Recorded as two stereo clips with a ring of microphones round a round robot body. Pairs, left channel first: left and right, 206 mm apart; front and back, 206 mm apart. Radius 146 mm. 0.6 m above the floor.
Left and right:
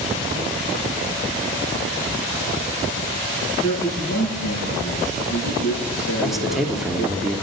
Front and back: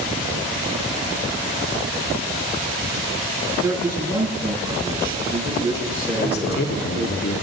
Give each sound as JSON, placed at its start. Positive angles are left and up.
{"t": 3.6, "sound": "a man speaking", "azimuth_deg": 105, "distance_m": 8.0}
{"t": 6.2, "sound": "a man speaking", "azimuth_deg": 0, "distance_m": 1.7}